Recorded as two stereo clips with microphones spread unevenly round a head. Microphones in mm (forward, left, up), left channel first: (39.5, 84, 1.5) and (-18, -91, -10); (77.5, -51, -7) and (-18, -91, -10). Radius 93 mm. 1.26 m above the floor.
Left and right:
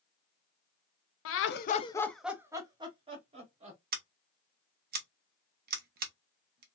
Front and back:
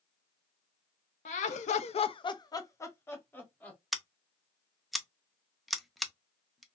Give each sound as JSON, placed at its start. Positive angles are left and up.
{"t": 1.2, "sound": "laughter", "azimuth_deg": 55, "distance_m": 0.6}
{"t": 3.9, "sound": "scissors", "azimuth_deg": -70, "distance_m": 0.6}